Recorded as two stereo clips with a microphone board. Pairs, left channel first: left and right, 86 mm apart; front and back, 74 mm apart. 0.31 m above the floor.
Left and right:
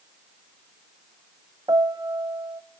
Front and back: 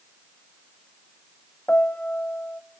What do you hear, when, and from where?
1.7 s a piano: 65° right, 0.8 m